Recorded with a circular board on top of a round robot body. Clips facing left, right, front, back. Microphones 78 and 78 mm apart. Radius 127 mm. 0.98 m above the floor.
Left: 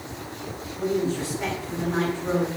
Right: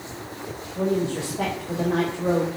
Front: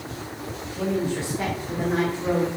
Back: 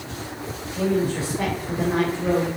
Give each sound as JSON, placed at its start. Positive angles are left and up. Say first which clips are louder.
{"t": 0.8, "sound": "a woman speaking", "louder": "right 1 dB, back 3 dB", "azimuth_deg": -95, "distance_m": 5.0}